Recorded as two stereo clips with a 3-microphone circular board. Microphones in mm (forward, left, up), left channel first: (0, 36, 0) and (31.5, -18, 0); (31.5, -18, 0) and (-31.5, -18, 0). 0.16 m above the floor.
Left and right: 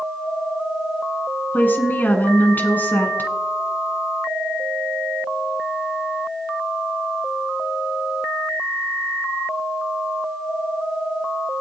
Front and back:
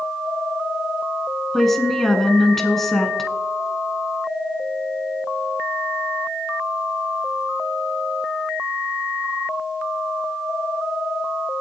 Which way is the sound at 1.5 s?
80° left.